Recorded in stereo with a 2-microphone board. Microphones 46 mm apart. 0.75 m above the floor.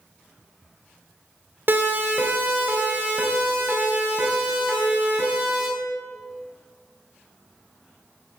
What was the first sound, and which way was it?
A siren, 50° right (ahead or behind).